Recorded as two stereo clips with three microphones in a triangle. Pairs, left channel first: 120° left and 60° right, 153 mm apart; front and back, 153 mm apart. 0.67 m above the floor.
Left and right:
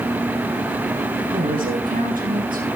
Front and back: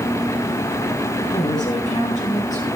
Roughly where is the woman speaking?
Ahead right.